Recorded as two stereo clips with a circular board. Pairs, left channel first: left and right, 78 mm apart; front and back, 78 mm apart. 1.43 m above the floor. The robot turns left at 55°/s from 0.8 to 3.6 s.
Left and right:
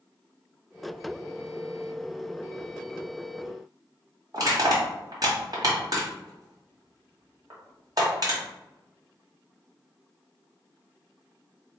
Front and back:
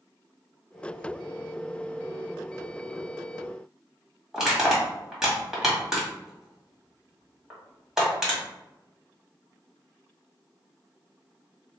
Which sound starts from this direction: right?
Crushing, at 4.3 s.